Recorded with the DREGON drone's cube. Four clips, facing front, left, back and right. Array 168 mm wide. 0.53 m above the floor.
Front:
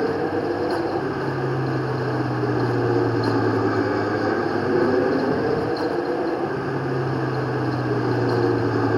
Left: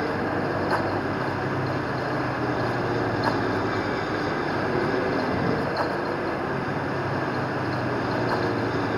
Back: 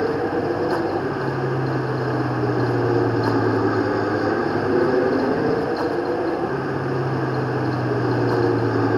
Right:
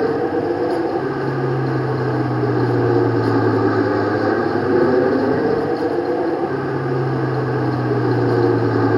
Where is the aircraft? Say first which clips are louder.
Right 8 dB, back 1 dB; 95° right.